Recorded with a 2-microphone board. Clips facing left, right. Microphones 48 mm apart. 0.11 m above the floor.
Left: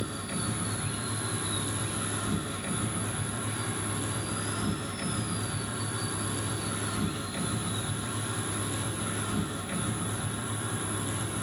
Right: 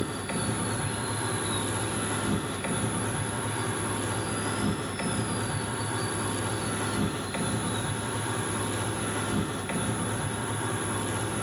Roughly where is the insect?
Right.